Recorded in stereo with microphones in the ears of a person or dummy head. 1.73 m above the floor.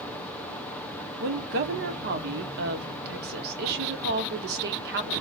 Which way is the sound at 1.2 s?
65° right (ahead or behind).